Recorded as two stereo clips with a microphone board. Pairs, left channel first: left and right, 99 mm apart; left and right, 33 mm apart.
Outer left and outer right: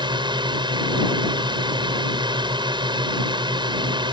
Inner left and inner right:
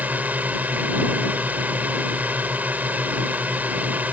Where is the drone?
50° right (ahead or behind).